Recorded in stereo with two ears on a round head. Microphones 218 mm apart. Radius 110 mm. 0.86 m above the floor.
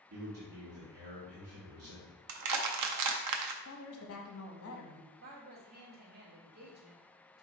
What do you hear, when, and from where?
0.1 s a man speaking: 65° right (ahead or behind), 1.3 m
2.3 s crushing: 80° right, 0.5 m
3.6 s a woman speaking: 60° left (ahead or behind), 0.9 m
5.2 s a woman speaking: 40° right (ahead or behind), 1.6 m